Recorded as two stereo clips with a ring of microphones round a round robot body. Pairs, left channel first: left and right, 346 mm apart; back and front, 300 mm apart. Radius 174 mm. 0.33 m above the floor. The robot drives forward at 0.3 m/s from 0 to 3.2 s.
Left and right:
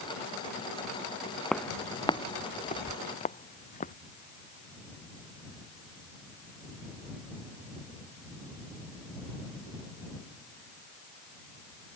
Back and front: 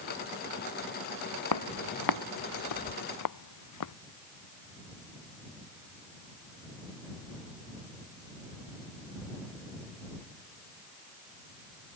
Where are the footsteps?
Straight behind; by 3.9 s 160° left.